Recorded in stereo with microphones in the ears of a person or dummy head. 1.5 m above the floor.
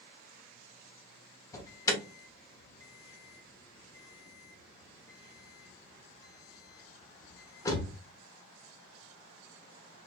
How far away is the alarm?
About 0.8 m.